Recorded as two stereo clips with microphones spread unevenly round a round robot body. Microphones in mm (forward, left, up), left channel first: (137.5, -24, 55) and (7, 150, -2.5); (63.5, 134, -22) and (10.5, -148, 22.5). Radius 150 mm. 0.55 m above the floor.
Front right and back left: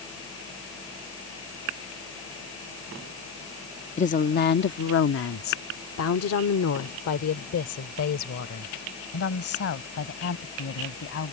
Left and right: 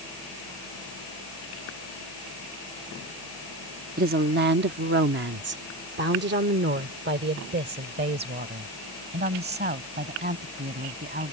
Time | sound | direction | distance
4.0 | a woman speaking | 90° right | ?